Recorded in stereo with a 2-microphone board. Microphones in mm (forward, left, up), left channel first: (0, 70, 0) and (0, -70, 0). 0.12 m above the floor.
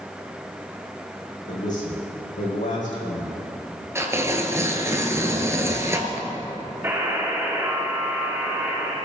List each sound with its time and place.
1.5 s a man speaking: 75° left (ahead or behind), 6 m
4.0 s tearing paper: 20° right (ahead or behind), 1.8 m
6.8 s a buzzer: 15° right (ahead or behind), 6 m